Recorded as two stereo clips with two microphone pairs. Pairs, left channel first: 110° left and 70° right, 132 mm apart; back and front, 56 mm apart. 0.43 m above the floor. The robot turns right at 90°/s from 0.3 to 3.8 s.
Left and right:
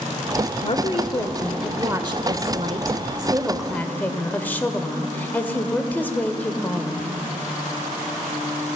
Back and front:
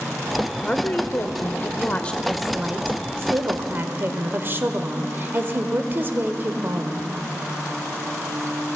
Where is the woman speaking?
110° left, 1.1 m; by 7.2 s 40° left, 1.1 m.